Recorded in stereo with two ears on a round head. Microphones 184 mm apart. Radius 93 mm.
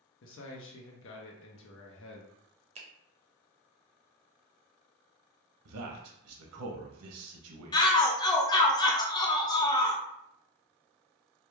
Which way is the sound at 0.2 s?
65° left (ahead or behind).